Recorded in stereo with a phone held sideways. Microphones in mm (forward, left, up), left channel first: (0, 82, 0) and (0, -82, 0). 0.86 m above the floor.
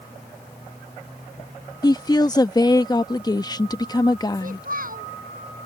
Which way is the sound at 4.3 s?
60° right (ahead or behind).